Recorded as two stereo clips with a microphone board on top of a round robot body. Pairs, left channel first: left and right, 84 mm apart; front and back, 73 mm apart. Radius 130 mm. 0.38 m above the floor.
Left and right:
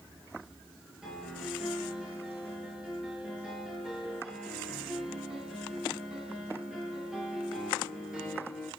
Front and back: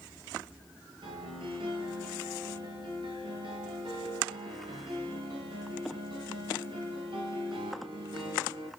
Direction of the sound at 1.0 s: 170° right.